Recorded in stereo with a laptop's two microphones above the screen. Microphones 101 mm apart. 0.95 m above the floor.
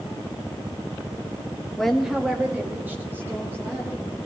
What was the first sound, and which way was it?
A woman speaking, 5° left (ahead or behind).